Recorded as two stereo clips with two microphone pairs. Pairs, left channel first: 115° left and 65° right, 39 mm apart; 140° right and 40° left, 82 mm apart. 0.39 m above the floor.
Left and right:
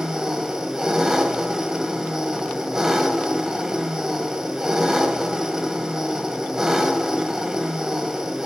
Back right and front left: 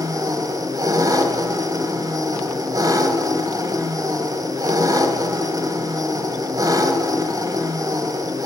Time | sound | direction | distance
0.0 | an engine running | 10° left | 1.5 m